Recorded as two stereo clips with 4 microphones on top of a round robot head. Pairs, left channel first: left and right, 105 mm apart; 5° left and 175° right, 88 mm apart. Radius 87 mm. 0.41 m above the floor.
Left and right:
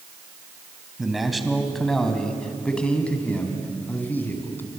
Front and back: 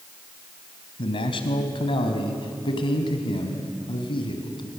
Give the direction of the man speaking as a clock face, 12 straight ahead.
12 o'clock.